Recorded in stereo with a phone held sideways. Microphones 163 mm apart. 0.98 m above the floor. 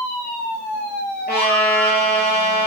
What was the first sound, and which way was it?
A trumpet, 75° left (ahead or behind).